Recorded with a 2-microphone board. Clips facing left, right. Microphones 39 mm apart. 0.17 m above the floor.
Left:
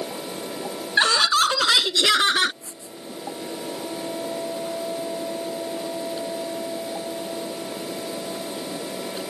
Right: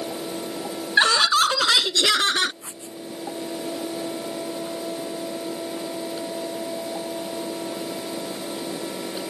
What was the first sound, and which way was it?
Laughter, 10° right (ahead or behind).